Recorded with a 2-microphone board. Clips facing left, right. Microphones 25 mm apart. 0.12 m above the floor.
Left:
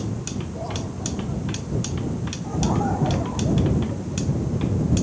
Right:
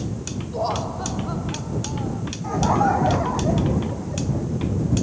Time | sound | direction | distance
0.5 | laughter | 55° right (ahead or behind) | ?
2.4 | laughter | 40° right (ahead or behind) | ?